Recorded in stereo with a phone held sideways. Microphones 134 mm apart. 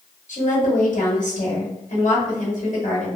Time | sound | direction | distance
0.3 | a woman speaking | 65° left (ahead or behind) | 1.3 m